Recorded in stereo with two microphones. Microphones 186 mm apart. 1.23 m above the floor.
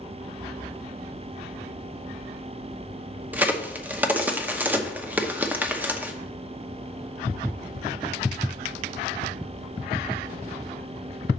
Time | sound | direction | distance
3.3 | a crack | 10° right (ahead or behind) | 0.9 m